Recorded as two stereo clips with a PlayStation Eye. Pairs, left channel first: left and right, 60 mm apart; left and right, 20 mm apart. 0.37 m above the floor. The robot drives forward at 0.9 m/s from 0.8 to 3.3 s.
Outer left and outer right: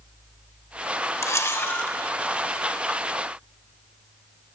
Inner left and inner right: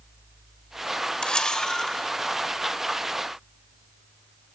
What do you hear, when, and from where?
1.2 s a camera shutter: 50° left (ahead or behind), 0.6 m; by 2.0 s 30° left (ahead or behind), 1.0 m